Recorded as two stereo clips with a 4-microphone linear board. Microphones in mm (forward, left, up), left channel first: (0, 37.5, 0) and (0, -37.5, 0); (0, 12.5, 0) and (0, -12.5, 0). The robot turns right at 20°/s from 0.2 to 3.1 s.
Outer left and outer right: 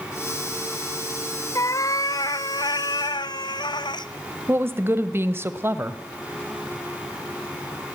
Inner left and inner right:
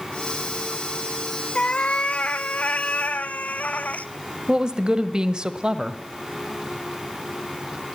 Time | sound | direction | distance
1.6 | a cat meowing | 45° left | 0.7 m
4.5 | a woman speaking | 30° right (ahead or behind) | 1.3 m